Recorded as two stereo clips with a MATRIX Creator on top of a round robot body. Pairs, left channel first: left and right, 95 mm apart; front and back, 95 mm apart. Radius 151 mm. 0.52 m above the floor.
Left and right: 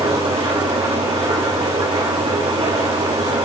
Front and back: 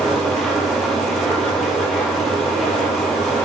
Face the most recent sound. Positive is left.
turn(degrees=-90)